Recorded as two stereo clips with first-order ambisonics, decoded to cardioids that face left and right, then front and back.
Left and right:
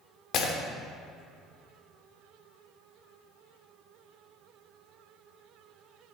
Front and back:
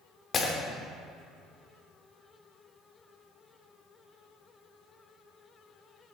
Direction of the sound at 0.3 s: 60° left.